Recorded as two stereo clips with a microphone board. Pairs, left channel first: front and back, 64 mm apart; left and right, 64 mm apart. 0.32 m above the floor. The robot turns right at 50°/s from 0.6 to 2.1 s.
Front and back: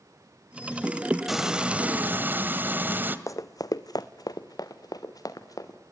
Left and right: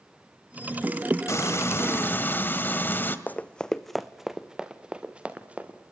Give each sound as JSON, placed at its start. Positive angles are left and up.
{"t": 1.3, "sound": "frying", "azimuth_deg": 95, "distance_m": 1.5}
{"t": 3.3, "sound": "running footsteps", "azimuth_deg": 30, "distance_m": 0.9}